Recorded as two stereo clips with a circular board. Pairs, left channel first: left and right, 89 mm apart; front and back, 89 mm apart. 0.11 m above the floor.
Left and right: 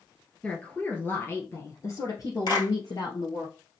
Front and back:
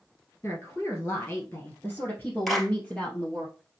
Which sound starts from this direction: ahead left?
A woman speaking, at 0.4 s.